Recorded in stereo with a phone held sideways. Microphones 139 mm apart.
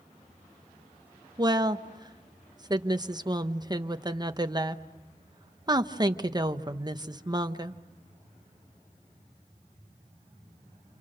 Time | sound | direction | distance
1.4 | a woman speaking | 30° right (ahead or behind) | 1.0 m